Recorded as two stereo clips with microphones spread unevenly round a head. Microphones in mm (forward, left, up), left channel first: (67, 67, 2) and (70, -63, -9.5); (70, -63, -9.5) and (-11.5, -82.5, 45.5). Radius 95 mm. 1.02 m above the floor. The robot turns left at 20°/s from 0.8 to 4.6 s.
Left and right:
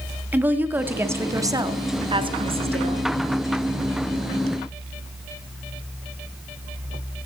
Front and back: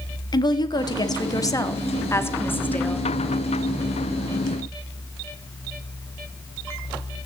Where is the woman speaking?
15° right, 1.7 m; by 3.1 s 60° right, 1.7 m.